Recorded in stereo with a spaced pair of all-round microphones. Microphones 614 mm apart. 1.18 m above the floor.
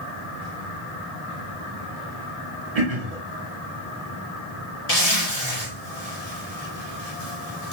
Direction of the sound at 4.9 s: 85° left.